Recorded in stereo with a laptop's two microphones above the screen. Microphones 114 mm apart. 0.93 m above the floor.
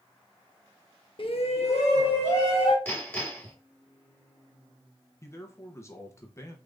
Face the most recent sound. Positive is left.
turn(degrees=25)  # may be behind; listen again after turning